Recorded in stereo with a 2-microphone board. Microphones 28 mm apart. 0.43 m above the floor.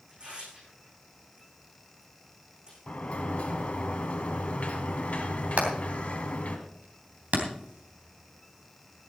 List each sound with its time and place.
0.1 s tearing paper: 35° right (ahead or behind), 9.5 m
2.9 s a sliding door: 55° left (ahead or behind), 1.9 m
5.6 s hammering: 60° right (ahead or behind), 3 m